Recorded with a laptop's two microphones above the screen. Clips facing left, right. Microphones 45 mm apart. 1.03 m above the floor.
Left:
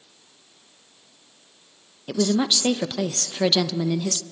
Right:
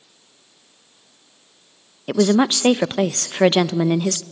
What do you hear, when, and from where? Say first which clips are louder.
2.1 s a woman speaking: right 6 dB; 35° right (ahead or behind), 0.6 m